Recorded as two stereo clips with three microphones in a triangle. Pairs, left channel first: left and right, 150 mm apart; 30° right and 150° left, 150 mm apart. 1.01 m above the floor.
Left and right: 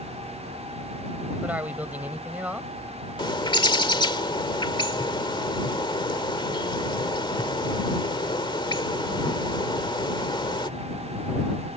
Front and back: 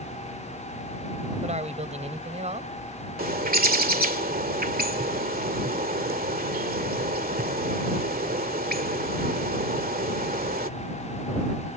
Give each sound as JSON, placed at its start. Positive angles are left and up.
{"t": 1.4, "sound": "a man speaking", "azimuth_deg": -170}
{"t": 3.2, "sound": "a bird", "azimuth_deg": 145}